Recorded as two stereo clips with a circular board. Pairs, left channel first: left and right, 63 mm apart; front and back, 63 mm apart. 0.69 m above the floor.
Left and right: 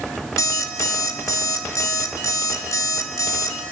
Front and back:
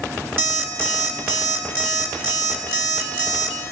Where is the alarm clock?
125° left, 3 m.